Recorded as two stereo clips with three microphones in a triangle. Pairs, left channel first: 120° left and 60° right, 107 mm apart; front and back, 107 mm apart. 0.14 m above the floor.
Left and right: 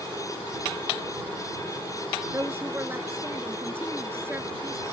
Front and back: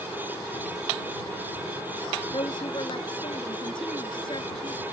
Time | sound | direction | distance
2.3 | a woman speaking | straight ahead | ?